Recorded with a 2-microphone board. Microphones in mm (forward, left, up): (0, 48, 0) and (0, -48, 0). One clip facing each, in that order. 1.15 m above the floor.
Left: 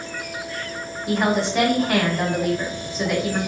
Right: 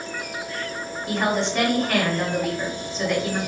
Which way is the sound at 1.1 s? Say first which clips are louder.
Left 2 dB; 5° left (ahead or behind).